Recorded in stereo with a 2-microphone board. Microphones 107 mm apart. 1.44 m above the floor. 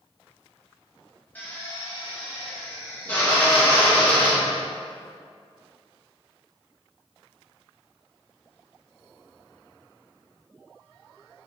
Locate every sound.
1.4 s a drill: 15° left (ahead or behind), 2 m